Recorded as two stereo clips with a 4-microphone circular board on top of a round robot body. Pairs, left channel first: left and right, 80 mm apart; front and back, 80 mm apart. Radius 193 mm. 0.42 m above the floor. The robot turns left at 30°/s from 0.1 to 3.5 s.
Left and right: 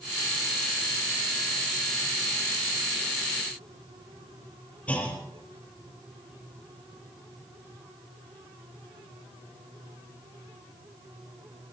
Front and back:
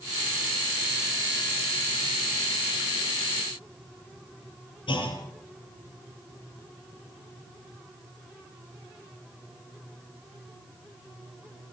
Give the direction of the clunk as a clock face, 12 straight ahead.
11 o'clock.